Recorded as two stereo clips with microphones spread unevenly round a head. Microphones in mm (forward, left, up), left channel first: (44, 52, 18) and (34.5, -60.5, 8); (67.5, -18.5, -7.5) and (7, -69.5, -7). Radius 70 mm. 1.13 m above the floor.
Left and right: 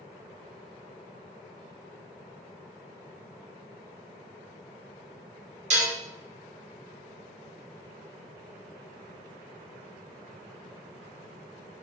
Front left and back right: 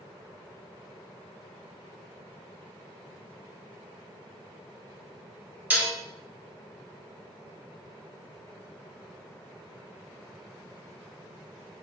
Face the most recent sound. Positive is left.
turn(degrees=-70)